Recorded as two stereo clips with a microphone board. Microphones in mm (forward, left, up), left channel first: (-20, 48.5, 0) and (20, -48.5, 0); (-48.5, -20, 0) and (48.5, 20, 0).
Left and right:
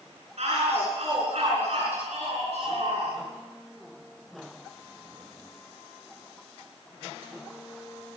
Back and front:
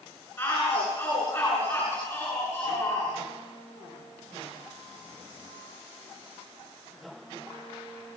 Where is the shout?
90° right, 8.5 m.